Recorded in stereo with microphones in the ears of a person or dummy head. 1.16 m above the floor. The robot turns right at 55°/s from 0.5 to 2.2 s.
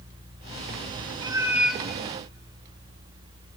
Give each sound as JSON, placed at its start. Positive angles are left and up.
{"t": 1.2, "sound": "a cat meowing", "azimuth_deg": -25, "distance_m": 1.0}